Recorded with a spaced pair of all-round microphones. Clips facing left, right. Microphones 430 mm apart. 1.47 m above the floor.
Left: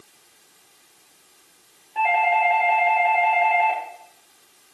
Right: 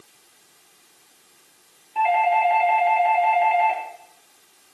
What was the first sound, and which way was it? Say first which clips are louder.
A doorbell: right 2 dB; 20° right (ahead or behind).